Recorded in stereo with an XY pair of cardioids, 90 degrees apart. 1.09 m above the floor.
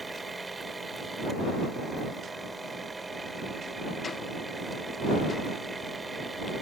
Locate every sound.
0.0 s a machine running: 20° right